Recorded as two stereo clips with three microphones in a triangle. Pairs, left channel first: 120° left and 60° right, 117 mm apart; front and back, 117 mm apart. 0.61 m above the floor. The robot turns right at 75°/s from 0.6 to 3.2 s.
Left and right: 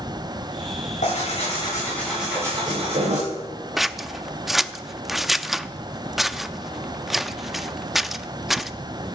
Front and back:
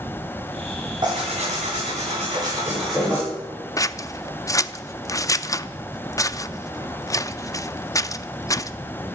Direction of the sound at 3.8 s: 25° left.